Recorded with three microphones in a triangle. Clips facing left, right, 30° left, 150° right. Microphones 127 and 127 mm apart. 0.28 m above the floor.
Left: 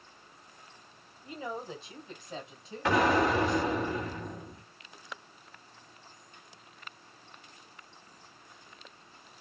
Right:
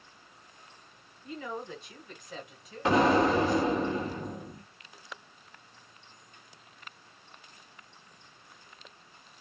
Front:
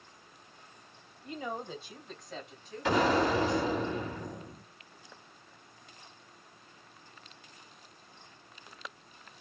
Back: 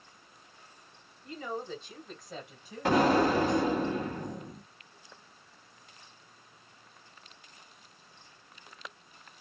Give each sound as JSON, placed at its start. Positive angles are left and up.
{"t": 1.2, "sound": "a woman speaking", "azimuth_deg": 65, "distance_m": 1.3}
{"t": 2.9, "sound": "an explosion", "azimuth_deg": -150, "distance_m": 2.0}